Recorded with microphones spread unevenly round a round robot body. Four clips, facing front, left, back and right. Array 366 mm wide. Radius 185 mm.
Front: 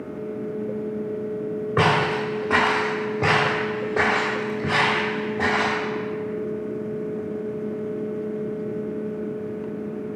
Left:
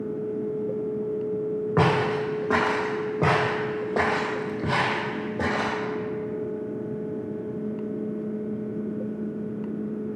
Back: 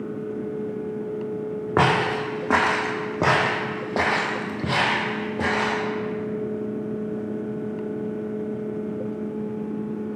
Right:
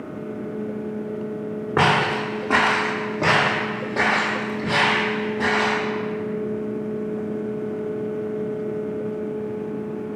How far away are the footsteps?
About 1.7 m.